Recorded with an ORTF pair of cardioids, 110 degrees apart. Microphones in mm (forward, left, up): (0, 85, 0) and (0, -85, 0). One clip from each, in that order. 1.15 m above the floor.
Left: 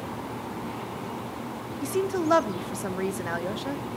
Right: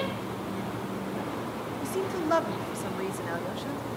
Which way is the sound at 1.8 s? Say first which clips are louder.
Left 5 dB; 20° left.